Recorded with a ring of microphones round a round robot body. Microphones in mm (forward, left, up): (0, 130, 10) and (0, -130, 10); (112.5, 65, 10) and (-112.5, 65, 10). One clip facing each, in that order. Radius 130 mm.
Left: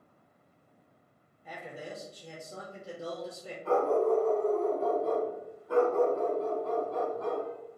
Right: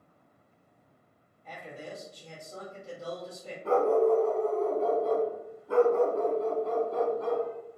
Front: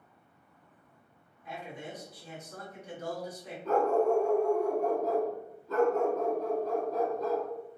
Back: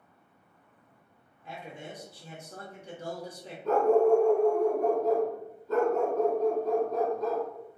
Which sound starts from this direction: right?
A dog barking, at 3.6 s.